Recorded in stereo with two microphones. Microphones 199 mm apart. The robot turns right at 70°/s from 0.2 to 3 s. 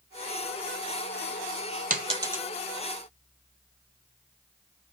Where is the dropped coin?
45° right (ahead or behind), 0.5 m; by 2.4 s 5° right (ahead or behind), 0.5 m.